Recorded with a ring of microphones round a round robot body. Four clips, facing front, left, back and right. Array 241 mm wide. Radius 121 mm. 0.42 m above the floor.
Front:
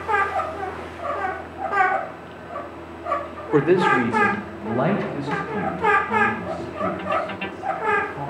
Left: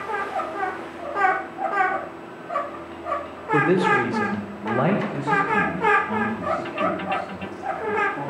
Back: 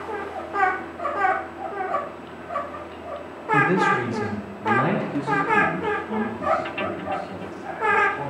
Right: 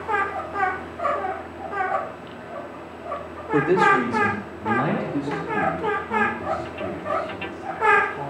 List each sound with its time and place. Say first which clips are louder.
3.5 s a man speaking: right 1 dB, front 3 dB; 5° left, 1.9 m; by 8.3 s 70° left, 7.5 m